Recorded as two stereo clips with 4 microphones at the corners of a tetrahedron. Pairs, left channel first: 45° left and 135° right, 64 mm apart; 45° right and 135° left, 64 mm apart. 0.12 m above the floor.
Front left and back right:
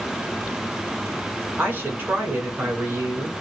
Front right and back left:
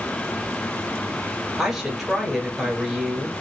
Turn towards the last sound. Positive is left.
turn(degrees=-145)